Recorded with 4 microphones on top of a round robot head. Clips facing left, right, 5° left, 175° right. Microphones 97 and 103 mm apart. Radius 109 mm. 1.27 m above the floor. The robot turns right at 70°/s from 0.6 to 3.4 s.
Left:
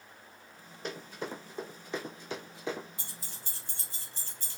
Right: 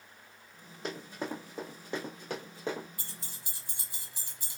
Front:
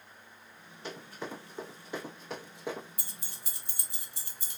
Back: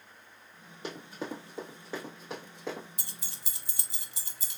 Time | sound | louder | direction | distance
0.8 | running footsteps | right 1 dB, back 2 dB | straight behind | 2.0 m
3.0 | keys jangling | left 1 dB, back 1 dB | 160° left | 0.5 m